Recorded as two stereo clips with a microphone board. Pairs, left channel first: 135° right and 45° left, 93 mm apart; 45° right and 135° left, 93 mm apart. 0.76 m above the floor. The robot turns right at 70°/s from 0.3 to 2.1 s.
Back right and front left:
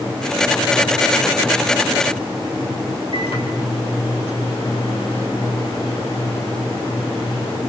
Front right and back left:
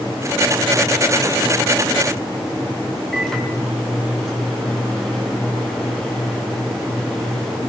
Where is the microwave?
130° right, 6 m.